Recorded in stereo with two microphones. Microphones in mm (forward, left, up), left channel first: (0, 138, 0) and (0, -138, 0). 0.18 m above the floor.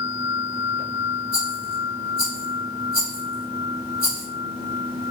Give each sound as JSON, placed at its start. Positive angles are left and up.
{"t": 1.3, "sound": "a rattle", "side_deg": -75, "distance_m": 2.5}